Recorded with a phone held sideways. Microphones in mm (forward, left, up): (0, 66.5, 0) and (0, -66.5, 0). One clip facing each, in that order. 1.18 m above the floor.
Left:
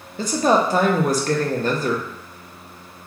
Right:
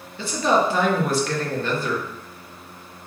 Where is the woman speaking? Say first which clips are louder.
Left 2 dB; 40° left (ahead or behind), 0.6 m.